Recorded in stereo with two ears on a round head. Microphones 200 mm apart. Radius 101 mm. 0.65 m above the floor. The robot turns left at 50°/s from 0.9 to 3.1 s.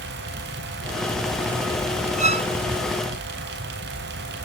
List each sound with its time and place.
2.2 s a violin: 35° right (ahead or behind), 0.6 m; by 2.5 s 20° right (ahead or behind), 0.6 m